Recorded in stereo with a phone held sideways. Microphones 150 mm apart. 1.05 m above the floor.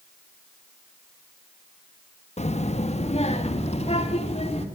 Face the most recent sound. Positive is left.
turn(degrees=45)  # may be behind; listen again after turning